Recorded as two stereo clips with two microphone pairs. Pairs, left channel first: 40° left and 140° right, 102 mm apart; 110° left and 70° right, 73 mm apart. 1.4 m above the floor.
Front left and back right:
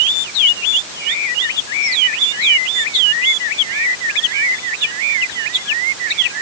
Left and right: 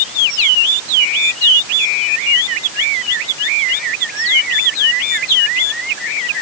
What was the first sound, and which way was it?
Only background noise.